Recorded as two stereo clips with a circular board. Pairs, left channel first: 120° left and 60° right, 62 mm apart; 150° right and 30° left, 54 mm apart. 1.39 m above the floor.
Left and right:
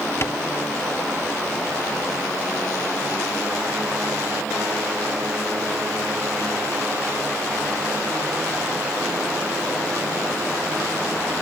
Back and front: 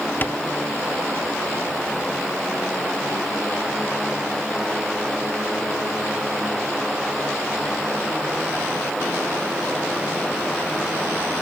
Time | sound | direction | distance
0.2 | tapping | 160° left | ?